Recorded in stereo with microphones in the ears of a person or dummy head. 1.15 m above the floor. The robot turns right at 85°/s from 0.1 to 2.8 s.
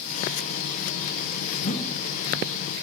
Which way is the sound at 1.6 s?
135° left.